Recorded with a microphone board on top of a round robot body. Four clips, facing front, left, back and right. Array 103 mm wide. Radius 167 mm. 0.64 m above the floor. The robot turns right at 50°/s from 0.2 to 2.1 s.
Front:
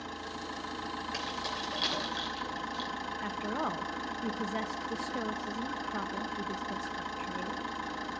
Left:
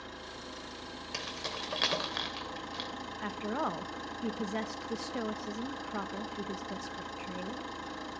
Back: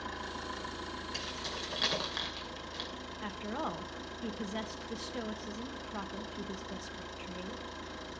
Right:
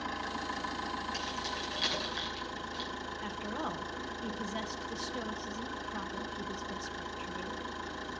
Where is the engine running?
80° right, 3.5 m; by 8.2 s 15° left, 3.5 m.